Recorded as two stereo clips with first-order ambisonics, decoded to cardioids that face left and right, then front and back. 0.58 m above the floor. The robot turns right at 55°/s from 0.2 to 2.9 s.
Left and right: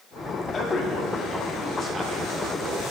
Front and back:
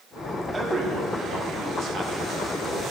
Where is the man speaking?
120° left, 0.9 m; by 2.8 s 115° right, 0.9 m.